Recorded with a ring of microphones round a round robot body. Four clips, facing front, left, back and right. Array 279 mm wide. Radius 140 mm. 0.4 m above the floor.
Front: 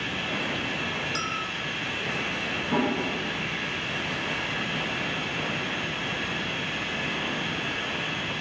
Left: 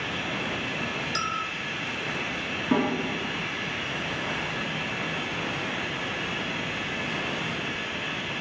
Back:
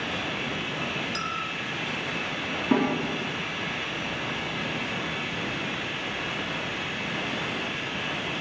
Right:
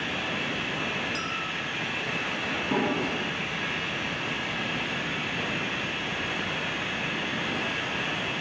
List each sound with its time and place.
0.0 s running water: 80° right, 3 m
1.1 s a clink: 90° left, 1.2 m
2.7 s a snare drum: 165° left, 4.5 m